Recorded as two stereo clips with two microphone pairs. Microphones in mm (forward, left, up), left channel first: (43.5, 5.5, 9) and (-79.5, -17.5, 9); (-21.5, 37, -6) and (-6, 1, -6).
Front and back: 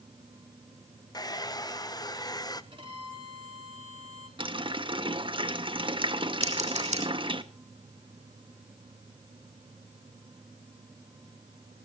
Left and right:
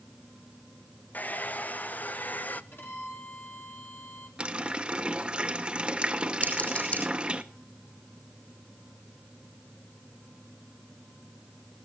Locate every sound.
1.1 s a hair dryer: 70° left, 0.8 m
2.7 s a violin: 145° left, 3.5 m
4.4 s a running tap: 130° right, 1.2 m
6.4 s scissors: 165° left, 6 m